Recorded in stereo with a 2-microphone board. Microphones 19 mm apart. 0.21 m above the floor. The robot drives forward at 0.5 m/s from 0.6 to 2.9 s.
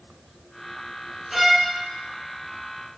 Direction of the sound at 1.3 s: 15° right (ahead or behind).